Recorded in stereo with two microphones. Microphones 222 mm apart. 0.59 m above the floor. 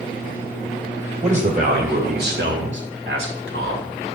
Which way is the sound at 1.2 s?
35° right (ahead or behind).